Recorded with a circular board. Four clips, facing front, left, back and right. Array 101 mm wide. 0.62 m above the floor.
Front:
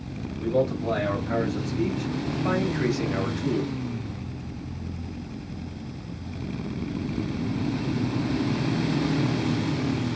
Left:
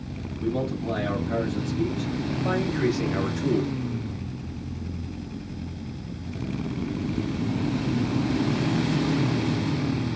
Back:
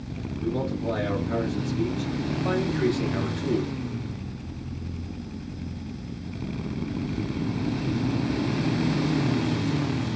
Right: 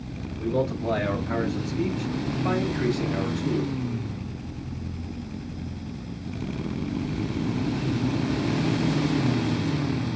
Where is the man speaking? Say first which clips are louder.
Right 2 dB, front 4 dB; 60° right, 1.4 m; by 3.7 s 90° left, 0.8 m.